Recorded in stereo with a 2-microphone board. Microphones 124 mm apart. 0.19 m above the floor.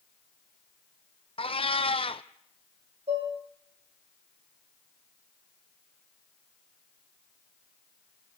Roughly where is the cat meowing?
Left.